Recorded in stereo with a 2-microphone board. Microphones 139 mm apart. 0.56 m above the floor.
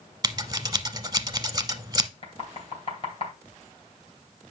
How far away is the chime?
No chime in this recording.